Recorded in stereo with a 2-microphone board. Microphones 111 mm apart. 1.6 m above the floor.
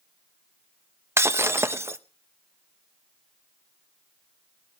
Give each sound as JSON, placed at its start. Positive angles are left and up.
{"t": 1.2, "sound": "breaking glass", "side_deg": -25, "distance_m": 0.8}